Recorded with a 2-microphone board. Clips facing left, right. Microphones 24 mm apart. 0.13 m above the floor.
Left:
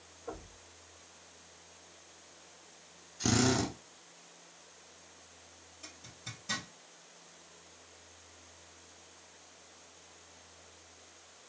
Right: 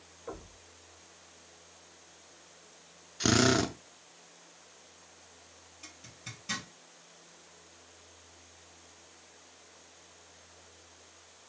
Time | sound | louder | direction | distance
0.3 | knocking | right 1 dB | 15° right (ahead or behind) | 2 m
3.2 | a drill | right 4 dB | 40° right (ahead or behind) | 0.5 m
5.8 | a zipper | even | 25° right (ahead or behind) | 3.5 m